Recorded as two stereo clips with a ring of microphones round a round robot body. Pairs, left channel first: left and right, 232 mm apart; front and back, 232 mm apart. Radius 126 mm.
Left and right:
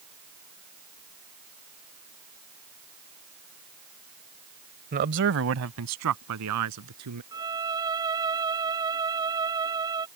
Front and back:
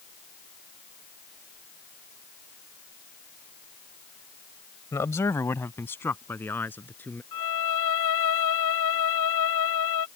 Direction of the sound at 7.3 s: 15° right.